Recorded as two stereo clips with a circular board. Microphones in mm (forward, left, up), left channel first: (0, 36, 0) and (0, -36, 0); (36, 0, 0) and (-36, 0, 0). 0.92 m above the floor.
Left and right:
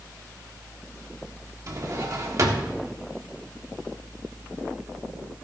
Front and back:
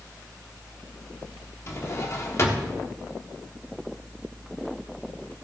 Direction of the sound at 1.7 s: 50° right.